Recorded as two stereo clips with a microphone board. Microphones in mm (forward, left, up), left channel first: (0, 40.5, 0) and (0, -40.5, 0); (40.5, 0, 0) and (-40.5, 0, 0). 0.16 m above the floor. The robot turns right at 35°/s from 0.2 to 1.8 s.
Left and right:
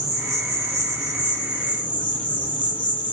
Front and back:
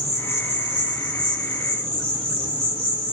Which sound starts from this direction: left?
An insect, at 0.0 s.